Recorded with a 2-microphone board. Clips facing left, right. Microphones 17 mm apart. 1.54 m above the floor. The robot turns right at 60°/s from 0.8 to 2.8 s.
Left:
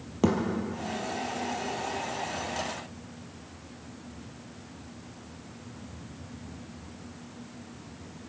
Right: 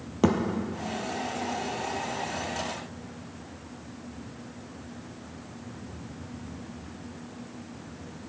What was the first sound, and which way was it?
A thud, 15° right (ahead or behind).